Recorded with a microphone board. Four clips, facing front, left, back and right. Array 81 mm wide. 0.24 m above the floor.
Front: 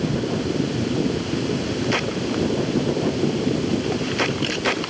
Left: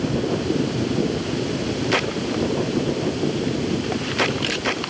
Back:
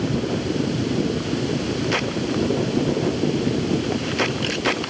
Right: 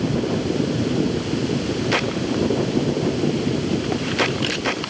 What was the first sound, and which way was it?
Only background noise.